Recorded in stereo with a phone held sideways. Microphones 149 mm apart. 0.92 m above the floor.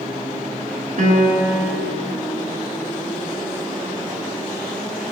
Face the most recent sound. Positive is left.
turn(degrees=-60)  # may be behind; listen again after turning